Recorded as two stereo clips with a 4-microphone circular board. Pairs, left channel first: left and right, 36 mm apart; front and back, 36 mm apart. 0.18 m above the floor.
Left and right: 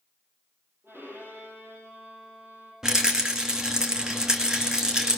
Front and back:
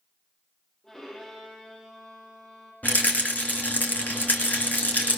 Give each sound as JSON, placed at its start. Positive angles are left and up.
{"t": 0.8, "sound": "a violin", "azimuth_deg": -75, "distance_m": 9.0}
{"t": 2.8, "sound": "a rattle", "azimuth_deg": -15, "distance_m": 2.5}